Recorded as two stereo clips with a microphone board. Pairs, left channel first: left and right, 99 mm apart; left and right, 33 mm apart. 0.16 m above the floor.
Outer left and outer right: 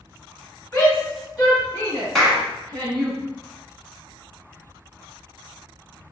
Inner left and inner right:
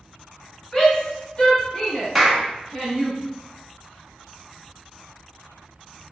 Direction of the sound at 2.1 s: 5° left (ahead or behind).